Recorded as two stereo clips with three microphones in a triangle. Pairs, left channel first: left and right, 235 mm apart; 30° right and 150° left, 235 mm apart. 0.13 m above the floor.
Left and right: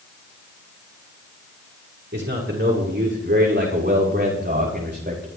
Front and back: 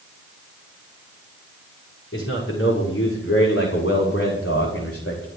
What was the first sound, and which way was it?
A man speaking, 55° right.